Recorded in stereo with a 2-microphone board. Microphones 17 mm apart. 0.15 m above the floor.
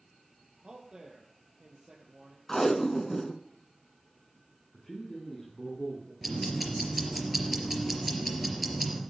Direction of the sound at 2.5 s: 20° left (ahead or behind).